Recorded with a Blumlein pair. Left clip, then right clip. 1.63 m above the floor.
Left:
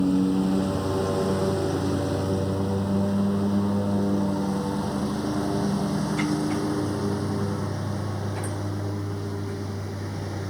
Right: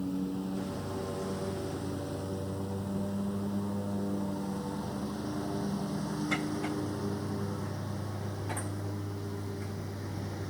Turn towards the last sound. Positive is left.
turn(degrees=70)